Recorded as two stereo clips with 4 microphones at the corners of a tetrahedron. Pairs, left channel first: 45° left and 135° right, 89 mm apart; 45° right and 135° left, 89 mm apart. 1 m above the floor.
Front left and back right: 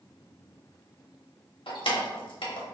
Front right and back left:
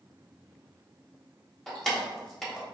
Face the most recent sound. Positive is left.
turn(degrees=40)